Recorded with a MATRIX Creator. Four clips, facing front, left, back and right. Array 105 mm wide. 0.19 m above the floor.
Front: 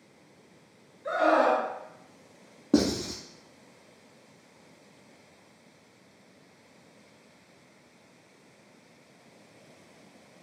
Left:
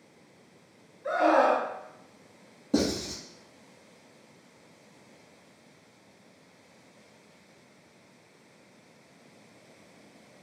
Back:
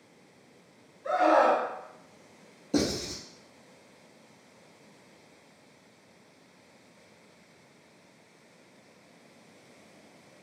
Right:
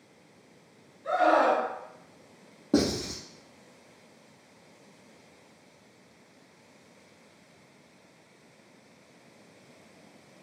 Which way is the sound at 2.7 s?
30° right.